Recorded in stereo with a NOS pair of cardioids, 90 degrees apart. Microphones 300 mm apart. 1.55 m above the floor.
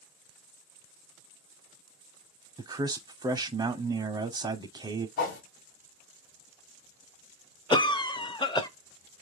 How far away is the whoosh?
About 1.5 m.